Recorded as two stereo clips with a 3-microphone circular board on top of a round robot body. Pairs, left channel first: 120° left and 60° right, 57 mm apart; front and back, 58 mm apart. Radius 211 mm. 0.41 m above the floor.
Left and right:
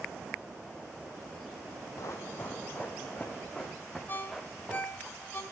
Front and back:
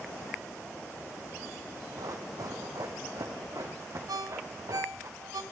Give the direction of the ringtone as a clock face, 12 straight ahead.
6 o'clock.